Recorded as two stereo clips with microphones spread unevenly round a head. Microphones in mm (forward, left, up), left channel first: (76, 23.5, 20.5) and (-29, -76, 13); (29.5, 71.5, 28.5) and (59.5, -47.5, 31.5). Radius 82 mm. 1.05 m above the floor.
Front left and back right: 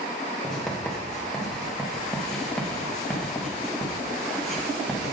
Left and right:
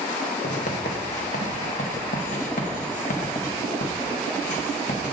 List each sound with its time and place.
0.4 s writing: 130° left, 1.4 m